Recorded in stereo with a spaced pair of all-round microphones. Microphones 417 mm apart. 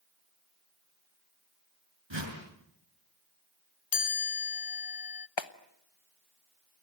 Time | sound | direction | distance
2.1 | a whoosh | 75° right (ahead or behind) | 5 m
3.9 | a chime | 55° left (ahead or behind) | 0.5 m
5.4 | a clap | 75° left (ahead or behind) | 1.1 m